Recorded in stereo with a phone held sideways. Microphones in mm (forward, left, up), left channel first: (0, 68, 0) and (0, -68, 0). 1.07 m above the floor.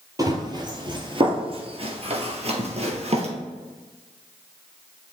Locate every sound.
0.2 s running footsteps: 30° right (ahead or behind), 1.7 m; by 3.3 s 50° right (ahead or behind), 1.7 m